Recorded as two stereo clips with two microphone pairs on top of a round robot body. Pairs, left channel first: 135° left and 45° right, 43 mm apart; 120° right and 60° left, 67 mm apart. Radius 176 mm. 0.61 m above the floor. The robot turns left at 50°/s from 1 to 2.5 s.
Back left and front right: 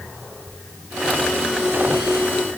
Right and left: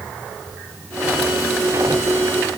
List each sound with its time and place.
Only background noise.